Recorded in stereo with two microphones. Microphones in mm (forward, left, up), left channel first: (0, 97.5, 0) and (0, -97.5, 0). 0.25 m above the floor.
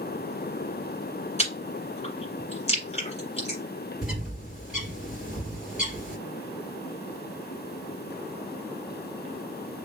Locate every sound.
1.4 s chewing: 35° left (ahead or behind), 2 m
4.0 s a bird: 5° right (ahead or behind), 2 m